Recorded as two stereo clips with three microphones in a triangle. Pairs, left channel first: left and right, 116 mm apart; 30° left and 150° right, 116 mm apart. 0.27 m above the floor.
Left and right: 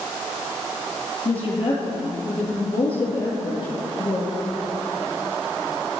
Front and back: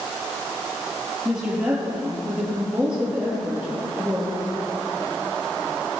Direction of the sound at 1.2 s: 130° left.